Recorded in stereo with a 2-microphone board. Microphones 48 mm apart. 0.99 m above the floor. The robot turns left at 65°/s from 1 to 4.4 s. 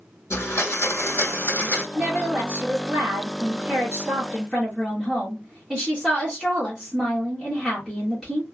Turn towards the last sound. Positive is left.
turn(degrees=-175)